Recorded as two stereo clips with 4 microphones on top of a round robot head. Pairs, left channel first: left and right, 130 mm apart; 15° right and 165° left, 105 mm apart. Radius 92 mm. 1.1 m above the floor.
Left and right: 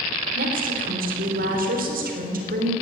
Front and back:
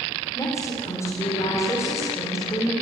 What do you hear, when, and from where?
0.3 s a woman speaking: 85° right, 4 m